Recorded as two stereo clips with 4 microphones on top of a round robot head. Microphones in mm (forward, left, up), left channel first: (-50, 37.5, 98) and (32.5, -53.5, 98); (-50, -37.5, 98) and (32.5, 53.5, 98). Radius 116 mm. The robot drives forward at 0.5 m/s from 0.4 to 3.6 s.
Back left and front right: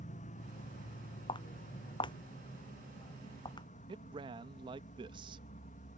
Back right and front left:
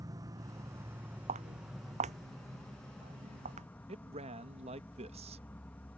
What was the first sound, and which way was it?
An insect, 110° left.